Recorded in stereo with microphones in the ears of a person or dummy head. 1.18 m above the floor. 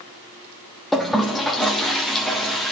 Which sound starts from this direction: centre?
A toilet flushing, at 0.9 s.